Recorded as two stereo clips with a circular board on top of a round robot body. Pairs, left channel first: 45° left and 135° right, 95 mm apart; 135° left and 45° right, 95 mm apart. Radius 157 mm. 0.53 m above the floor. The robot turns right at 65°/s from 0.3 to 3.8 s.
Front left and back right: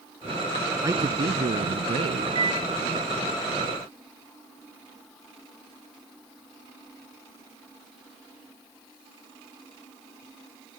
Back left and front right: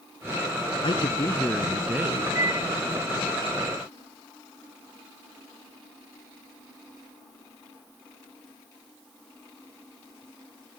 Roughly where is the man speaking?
Behind.